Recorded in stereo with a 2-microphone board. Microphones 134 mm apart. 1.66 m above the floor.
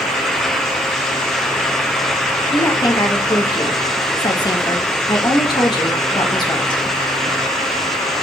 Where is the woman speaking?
30° left (ahead or behind), 1.7 m.